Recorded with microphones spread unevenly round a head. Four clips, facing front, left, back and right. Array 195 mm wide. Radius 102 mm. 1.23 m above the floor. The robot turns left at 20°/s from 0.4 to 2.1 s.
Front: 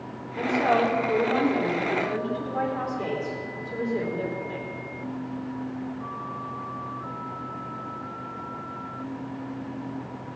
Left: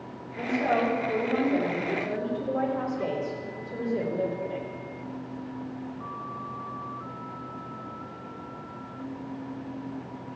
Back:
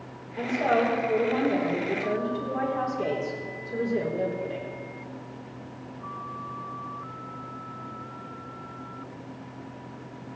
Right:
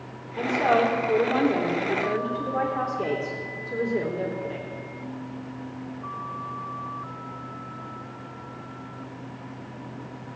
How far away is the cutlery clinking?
No cutlery clinking in this recording.